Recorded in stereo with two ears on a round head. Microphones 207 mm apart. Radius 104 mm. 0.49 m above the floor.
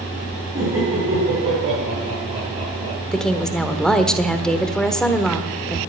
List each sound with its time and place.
0.6 s laughter: 20° right (ahead or behind), 5.5 m
3.1 s a woman speaking: 5° left (ahead or behind), 1.3 m